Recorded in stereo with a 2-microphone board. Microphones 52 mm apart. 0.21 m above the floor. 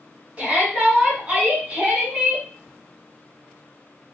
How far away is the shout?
About 1.7 m.